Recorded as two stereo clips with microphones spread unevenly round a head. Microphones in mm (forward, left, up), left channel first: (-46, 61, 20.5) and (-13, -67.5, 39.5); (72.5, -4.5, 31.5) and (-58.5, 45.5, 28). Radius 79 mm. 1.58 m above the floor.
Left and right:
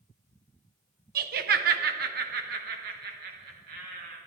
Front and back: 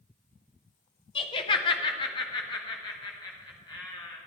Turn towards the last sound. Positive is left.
turn(degrees=-85)